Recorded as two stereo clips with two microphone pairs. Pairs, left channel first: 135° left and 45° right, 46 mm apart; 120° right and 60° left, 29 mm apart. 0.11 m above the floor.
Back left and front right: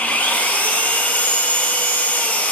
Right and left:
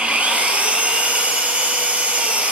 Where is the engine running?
85° left, 0.9 m.